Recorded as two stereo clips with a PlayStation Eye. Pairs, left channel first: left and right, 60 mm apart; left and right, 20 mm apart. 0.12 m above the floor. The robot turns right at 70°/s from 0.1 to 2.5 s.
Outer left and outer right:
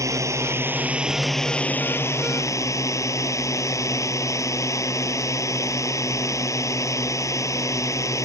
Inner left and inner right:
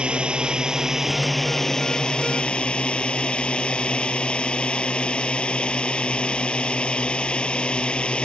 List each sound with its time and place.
0.0 s a drone: 85° right; by 8.2 s 85° left